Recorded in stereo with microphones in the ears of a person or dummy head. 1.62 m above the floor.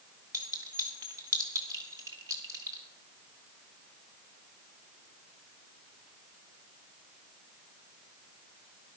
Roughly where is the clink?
Centre.